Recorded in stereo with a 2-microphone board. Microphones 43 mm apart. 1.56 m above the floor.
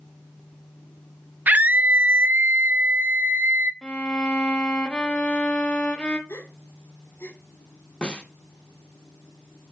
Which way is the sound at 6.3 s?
75° left (ahead or behind).